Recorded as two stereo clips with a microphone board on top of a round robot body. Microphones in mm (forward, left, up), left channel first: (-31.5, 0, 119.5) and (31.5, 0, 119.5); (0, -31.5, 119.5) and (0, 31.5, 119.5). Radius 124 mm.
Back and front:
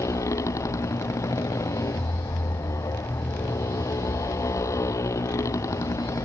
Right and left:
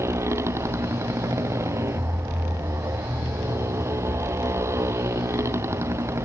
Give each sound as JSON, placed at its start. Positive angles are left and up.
{"t": 0.0, "sound": "a motorcycle", "azimuth_deg": 135}